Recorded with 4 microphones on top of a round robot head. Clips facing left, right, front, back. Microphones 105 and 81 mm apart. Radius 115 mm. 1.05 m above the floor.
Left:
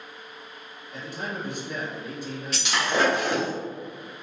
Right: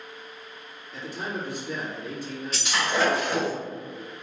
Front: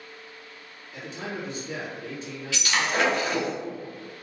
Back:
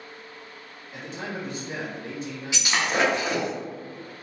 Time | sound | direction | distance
0.9 | a man speaking | 140° left | 1.7 m
2.5 | breaking glass | 110° left | 0.8 m